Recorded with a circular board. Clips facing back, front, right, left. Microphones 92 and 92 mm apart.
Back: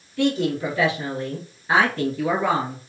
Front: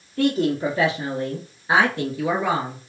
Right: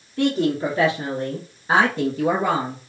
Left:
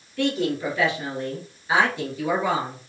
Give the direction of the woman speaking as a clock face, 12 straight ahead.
1 o'clock.